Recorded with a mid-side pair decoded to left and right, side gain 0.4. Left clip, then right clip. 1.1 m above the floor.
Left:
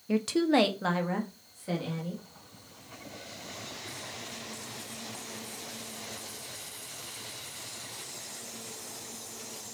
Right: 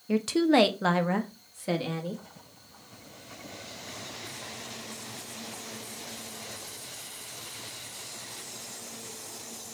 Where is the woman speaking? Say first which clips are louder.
Right 2 dB; straight ahead, 0.8 m; by 2.2 s 60° right, 1.5 m.